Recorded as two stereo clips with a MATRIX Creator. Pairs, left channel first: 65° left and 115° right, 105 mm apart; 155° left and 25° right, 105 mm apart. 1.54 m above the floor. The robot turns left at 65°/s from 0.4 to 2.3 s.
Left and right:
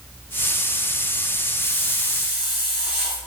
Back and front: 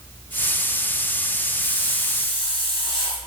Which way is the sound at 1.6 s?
150° right.